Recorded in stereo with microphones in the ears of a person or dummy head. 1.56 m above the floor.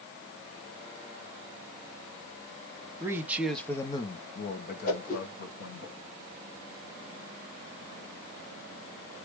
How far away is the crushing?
No crushing in this recording.